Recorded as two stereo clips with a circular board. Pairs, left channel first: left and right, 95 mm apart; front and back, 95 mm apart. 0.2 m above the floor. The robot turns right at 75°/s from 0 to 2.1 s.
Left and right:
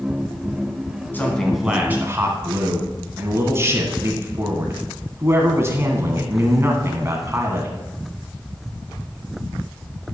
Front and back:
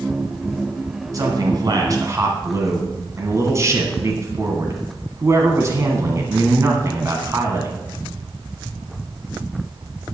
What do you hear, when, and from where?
1.1 s a man speaking: 150° left, 1.8 m; by 7.8 s 140° right, 1.8 m